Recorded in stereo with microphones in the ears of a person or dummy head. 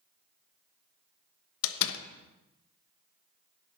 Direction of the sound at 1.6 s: 75° left (ahead or behind).